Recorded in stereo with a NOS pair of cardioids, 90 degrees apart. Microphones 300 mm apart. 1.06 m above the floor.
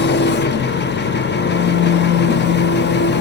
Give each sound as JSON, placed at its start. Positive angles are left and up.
{"t": 0.0, "sound": "an engine running", "azimuth_deg": 35, "distance_m": 1.0}